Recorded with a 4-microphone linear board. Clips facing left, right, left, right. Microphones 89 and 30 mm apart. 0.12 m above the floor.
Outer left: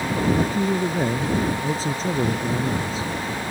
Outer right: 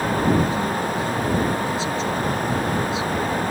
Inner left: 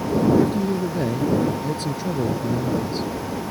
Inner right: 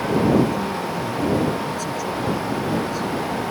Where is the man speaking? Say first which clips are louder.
Even, inner left 1 dB; 40° left (ahead or behind).